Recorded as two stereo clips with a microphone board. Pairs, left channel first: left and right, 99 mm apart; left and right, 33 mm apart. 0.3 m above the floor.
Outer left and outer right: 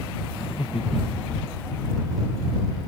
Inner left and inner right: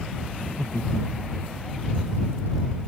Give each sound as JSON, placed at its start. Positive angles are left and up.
{"t": 0.3, "sound": "laughter", "side_deg": 65}